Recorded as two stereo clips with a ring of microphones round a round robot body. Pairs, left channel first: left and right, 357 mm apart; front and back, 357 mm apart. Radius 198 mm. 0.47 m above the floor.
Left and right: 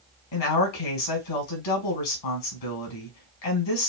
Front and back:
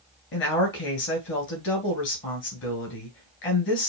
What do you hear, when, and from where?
0.3 s a woman speaking: 60° left, 3 m